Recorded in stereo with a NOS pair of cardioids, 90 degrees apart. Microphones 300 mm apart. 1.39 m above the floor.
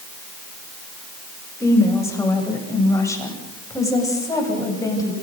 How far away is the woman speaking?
About 8 m.